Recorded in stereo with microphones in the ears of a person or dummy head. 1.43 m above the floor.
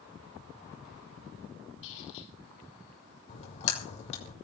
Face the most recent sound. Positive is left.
turn(degrees=35)  # may be behind; listen again after turning